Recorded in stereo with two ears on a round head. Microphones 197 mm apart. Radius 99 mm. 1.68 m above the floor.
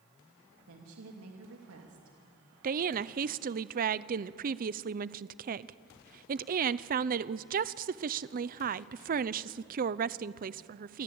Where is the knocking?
I don't hear knocking.